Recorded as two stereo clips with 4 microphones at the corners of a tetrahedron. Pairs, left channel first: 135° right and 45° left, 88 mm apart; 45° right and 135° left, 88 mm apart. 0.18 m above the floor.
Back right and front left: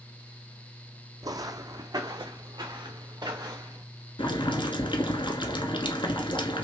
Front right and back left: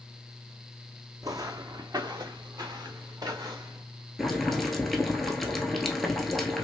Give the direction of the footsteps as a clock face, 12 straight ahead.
9 o'clock.